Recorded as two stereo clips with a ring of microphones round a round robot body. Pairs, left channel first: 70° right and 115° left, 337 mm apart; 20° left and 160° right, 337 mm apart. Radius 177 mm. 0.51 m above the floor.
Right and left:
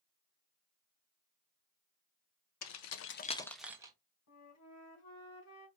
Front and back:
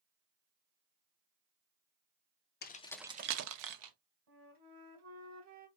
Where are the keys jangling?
35° right, 0.8 m; by 3.9 s 170° right, 1.0 m.